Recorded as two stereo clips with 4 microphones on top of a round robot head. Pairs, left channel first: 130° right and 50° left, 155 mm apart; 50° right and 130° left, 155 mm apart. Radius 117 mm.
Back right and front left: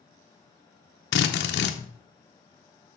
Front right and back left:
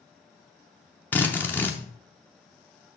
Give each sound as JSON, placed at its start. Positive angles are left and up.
{"t": 1.1, "sound": "a drill", "azimuth_deg": -130, "distance_m": 0.6}